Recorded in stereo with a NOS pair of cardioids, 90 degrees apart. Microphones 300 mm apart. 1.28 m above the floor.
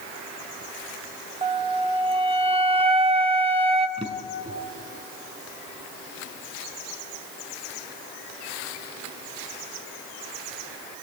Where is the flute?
20° right, 1.2 m.